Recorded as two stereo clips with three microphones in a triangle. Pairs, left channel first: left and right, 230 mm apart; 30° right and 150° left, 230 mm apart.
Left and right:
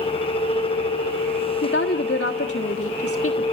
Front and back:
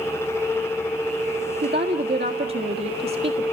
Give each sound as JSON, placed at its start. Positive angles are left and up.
{"t": 1.6, "sound": "a woman speaking", "azimuth_deg": 110, "distance_m": 1.5}